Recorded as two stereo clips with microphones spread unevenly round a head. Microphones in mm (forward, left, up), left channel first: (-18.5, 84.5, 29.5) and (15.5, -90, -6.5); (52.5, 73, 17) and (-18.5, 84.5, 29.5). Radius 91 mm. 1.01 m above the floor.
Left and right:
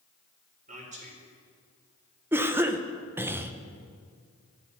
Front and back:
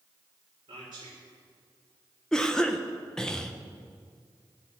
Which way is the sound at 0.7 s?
130° right.